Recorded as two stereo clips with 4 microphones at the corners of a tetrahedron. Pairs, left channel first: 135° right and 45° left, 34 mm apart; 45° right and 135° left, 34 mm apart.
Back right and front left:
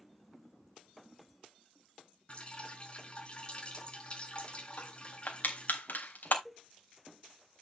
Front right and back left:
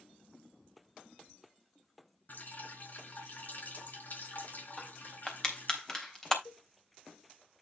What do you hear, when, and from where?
2.3 s dripping: 80° right, 4 m
4.8 s crushing: 120° right, 3 m
6.5 s a cowbell: 55° right, 0.9 m